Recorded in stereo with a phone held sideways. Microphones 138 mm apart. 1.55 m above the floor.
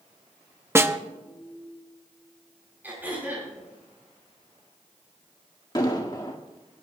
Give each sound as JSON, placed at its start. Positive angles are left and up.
{"t": 0.8, "sound": "a snare drum", "side_deg": -20, "distance_m": 0.8}
{"t": 2.8, "sound": "throat clearing", "side_deg": -15, "distance_m": 7.5}
{"t": 5.8, "sound": "an explosion", "side_deg": 30, "distance_m": 1.9}